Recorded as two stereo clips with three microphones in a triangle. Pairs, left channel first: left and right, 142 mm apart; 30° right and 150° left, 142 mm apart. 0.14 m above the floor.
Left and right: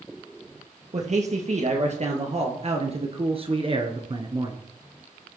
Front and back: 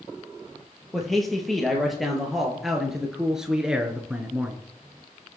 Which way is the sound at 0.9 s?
120° right.